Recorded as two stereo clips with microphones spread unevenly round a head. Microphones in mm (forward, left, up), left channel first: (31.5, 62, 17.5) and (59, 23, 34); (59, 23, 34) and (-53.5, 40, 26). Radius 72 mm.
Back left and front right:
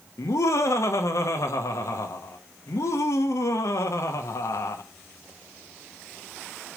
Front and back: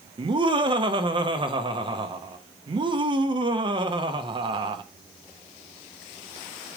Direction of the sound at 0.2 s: 125° left.